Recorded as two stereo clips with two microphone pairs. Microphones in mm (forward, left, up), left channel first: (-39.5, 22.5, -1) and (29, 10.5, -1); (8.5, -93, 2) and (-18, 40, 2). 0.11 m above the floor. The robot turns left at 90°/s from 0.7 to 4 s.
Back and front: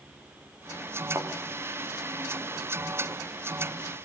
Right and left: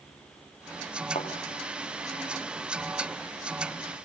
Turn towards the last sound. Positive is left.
turn(degrees=60)